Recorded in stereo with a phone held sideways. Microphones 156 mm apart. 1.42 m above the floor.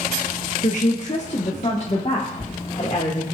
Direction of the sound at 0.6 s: 55° left (ahead or behind).